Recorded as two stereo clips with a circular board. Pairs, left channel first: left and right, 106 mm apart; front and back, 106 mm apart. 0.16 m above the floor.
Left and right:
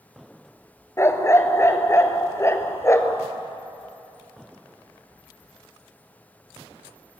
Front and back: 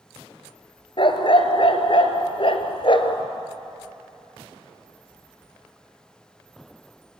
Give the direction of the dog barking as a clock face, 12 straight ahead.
11 o'clock.